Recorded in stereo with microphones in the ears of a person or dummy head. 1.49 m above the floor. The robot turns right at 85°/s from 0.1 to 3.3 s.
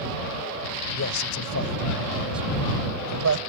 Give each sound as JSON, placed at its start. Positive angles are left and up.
{"t": 0.9, "sound": "a man speaking", "side_deg": 65}